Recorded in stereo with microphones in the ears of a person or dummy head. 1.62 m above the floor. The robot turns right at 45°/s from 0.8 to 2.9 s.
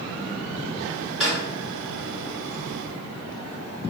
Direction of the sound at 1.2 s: Centre (ahead or behind).